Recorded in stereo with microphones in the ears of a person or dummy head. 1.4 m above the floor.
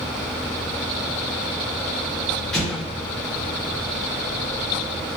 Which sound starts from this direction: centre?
An explosion, at 2.5 s.